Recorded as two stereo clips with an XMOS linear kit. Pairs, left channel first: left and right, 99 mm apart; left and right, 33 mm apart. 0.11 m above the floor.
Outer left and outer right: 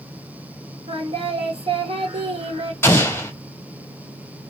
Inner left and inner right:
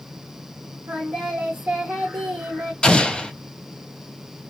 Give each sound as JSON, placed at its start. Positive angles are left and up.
{"t": 0.9, "sound": "singing", "side_deg": -70, "distance_m": 1.4}
{"t": 2.8, "sound": "an explosion", "side_deg": 25, "distance_m": 0.7}